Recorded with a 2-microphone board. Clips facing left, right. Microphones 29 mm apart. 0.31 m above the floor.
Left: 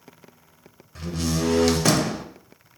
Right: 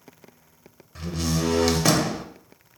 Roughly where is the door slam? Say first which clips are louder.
Left 1 dB; centre.